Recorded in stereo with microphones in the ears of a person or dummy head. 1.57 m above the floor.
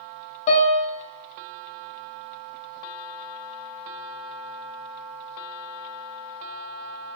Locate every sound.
0.5 s a piano: 40° left (ahead or behind), 1.3 m